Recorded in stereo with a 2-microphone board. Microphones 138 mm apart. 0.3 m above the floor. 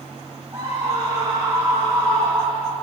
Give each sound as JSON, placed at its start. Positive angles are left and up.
{"t": 0.5, "sound": "a scream", "side_deg": -25, "distance_m": 7.5}